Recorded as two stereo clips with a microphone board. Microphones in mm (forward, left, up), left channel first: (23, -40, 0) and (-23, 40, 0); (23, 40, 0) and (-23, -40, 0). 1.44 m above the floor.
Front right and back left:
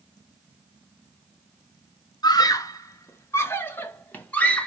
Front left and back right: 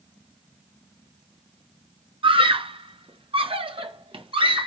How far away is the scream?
About 1.2 m.